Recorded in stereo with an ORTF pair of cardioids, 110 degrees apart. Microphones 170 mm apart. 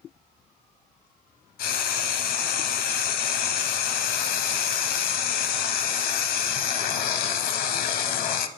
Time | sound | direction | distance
1.6 | frying | 65° left | 0.7 m